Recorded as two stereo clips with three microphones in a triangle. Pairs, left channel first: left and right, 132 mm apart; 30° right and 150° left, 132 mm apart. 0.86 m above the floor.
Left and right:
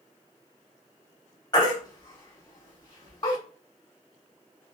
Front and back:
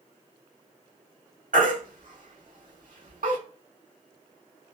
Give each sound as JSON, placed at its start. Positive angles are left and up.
{"t": 1.5, "sound": "a baby crying", "azimuth_deg": 145, "distance_m": 1.3}